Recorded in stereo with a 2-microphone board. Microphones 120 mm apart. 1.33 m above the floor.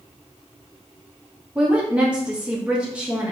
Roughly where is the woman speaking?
Centre.